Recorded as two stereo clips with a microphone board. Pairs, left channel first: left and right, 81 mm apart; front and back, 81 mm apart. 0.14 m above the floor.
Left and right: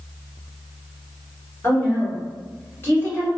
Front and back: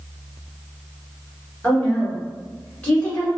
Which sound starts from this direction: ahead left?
A woman speaking, at 1.6 s.